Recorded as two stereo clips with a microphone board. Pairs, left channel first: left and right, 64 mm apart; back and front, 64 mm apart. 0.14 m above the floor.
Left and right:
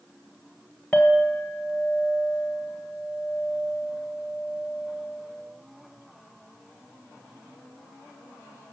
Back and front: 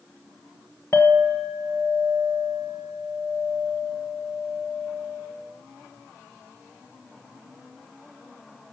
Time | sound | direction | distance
0.9 | a clink | 165° left | 1.4 m